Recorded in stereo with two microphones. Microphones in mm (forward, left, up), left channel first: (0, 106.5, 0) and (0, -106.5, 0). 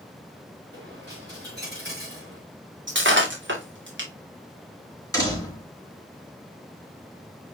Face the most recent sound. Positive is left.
turn(degrees=15)  # may be behind; listen again after turning